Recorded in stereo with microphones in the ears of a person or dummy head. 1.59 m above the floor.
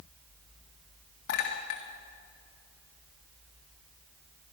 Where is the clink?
60° left (ahead or behind), 1.6 m.